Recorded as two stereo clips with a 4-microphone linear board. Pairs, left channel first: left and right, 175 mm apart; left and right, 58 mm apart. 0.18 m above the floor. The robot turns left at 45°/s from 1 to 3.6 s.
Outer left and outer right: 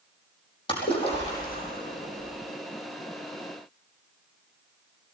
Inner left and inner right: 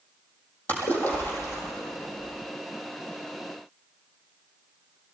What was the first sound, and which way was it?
A splash, 150° left.